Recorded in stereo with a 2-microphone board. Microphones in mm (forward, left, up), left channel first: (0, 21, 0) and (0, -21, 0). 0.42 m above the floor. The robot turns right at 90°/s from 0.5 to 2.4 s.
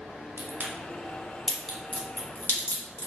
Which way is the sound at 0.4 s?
60° right (ahead or behind).